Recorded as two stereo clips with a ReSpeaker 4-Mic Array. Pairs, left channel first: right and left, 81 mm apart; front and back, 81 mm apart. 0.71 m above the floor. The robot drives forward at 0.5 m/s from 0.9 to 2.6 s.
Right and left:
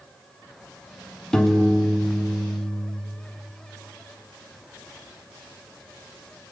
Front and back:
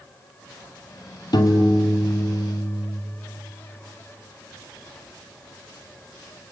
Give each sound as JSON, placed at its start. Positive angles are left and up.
{"t": 1.3, "sound": "a piano", "azimuth_deg": -10, "distance_m": 2.0}